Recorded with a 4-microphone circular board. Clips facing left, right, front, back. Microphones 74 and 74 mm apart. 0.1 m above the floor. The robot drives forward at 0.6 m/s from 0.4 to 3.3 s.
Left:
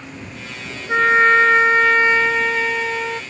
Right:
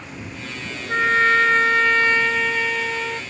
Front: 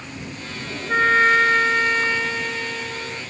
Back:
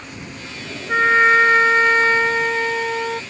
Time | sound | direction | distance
0.9 | a trumpet | 105° left | ?